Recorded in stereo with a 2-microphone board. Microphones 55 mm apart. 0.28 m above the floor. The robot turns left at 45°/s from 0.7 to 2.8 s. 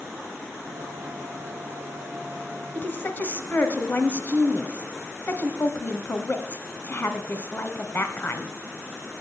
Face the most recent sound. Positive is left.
turn(degrees=35)  # may be behind; listen again after turning